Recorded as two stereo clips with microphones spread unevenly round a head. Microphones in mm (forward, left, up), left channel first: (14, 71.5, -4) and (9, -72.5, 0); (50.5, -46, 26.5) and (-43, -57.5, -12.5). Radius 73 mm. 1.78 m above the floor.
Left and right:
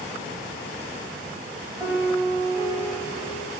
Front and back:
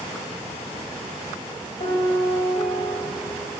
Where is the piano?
15° right, 0.8 m.